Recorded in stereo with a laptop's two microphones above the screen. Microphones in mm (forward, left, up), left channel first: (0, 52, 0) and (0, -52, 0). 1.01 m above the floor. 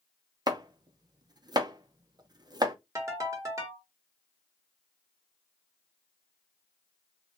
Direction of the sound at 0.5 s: 40° right (ahead or behind).